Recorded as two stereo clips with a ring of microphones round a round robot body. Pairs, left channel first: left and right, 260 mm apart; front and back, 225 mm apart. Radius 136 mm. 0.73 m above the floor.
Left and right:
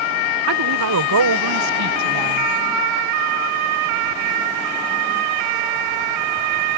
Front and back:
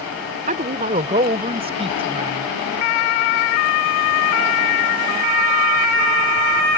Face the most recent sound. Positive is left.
turn(degrees=-110)